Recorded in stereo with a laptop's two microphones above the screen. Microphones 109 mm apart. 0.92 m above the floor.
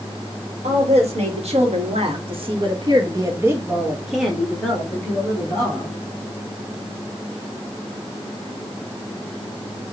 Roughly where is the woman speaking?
Right.